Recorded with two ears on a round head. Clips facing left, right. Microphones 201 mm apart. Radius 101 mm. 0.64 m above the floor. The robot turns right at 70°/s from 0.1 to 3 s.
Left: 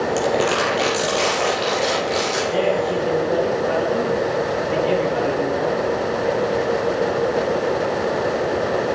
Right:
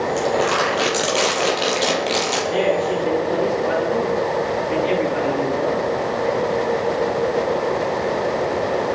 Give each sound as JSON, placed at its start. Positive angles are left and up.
{"t": 0.2, "sound": "crumpling", "azimuth_deg": 145, "distance_m": 6.5}
{"t": 2.5, "sound": "a man speaking", "azimuth_deg": -60, "distance_m": 9.5}